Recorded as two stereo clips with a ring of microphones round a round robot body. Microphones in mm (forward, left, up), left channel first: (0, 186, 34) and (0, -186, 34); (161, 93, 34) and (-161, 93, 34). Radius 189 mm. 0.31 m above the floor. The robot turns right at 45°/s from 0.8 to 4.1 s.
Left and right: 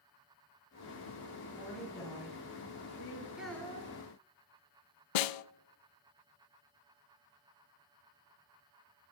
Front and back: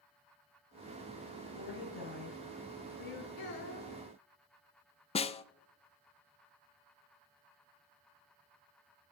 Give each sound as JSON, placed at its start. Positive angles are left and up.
{"t": 1.6, "sound": "a woman speaking", "azimuth_deg": -10, "distance_m": 6.5}
{"t": 3.4, "sound": "a child speaking", "azimuth_deg": -5, "distance_m": 2.5}
{"t": 5.2, "sound": "a snare drum", "azimuth_deg": 75, "distance_m": 0.5}